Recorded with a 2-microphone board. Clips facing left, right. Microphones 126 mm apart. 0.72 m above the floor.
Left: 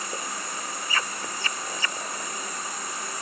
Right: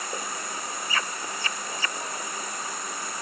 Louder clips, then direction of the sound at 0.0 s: Even; 60° right (ahead or behind).